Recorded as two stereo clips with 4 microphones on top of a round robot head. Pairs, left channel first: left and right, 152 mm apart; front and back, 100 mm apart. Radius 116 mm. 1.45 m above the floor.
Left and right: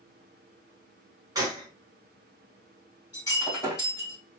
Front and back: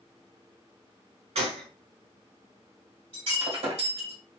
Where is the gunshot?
160° right, 1.0 m.